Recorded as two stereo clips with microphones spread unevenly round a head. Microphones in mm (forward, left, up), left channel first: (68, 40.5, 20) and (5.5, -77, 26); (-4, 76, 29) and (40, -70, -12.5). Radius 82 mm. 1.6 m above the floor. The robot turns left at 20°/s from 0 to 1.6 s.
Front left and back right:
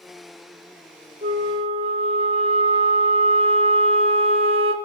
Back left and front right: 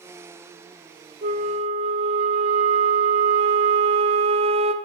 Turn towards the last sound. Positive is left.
turn(degrees=-130)